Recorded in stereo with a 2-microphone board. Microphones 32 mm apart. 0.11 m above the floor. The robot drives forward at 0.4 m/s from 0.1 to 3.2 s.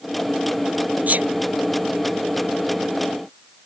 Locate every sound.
1.1 s a sneeze: 55° right (ahead or behind)